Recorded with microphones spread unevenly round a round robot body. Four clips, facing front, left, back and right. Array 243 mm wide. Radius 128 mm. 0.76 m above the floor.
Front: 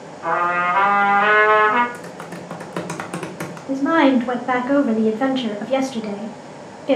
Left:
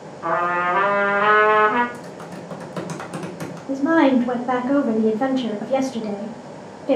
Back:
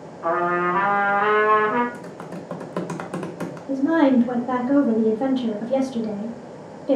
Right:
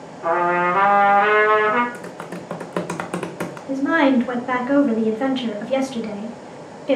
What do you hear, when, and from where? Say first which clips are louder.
0.2 s a trumpet: right 2 dB, front 2 dB; 90° left, 1.6 m
1.9 s typing on a keyboard: right 2 dB, front 2 dB; 55° right, 0.6 m
3.7 s a woman speaking: left 1 dB, front 2 dB; 35° left, 0.6 m